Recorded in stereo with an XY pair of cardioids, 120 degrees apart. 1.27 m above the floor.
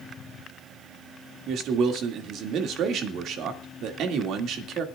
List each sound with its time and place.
1.5 s a man speaking: 65° right, 2.5 m